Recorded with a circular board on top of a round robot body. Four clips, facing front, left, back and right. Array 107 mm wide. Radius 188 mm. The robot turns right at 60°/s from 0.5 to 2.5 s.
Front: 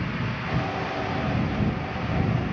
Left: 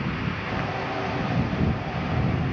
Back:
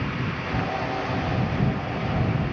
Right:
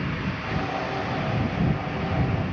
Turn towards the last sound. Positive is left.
No sound to turn to.